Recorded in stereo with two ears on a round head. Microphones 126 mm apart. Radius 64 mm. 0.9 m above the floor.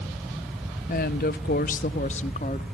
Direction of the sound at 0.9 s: 55° left (ahead or behind).